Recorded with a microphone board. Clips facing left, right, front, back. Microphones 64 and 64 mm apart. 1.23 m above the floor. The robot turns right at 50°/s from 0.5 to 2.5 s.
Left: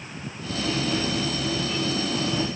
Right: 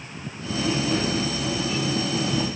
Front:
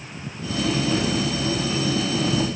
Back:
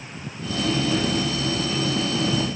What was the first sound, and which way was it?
Only background noise.